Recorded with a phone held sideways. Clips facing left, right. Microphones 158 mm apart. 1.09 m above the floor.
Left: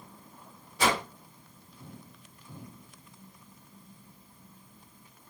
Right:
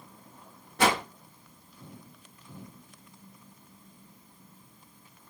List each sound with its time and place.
0.8 s a whoosh: 65° right (ahead or behind), 0.7 m